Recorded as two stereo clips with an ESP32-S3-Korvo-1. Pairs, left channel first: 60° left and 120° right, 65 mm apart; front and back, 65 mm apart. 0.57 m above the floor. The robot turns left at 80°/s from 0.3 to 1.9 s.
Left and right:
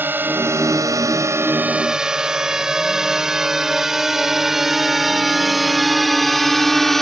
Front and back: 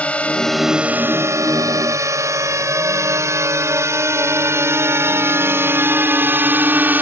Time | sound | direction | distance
0.0 | a drone | 65° right | ?